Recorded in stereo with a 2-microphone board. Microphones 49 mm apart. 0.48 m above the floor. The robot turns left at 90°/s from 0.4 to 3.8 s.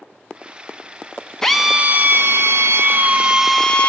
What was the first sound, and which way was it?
A drill, 10° left.